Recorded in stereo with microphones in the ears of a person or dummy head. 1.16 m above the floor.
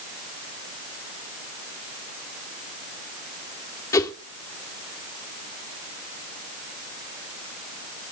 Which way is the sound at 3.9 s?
20° left (ahead or behind).